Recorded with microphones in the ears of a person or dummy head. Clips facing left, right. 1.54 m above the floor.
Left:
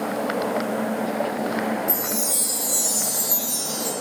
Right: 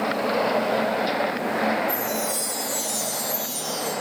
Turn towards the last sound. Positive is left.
turn(degrees=40)  # may be behind; listen again after turning